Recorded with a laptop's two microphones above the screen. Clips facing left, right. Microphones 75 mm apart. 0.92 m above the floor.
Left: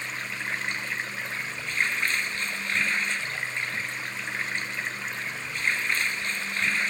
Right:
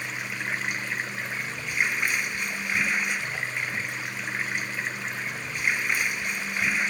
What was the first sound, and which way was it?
Running water, 10° right (ahead or behind).